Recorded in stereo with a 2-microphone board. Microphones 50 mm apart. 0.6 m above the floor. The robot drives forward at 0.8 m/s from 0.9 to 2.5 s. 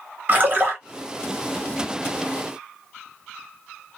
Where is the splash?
35° right (ahead or behind), 1.2 m.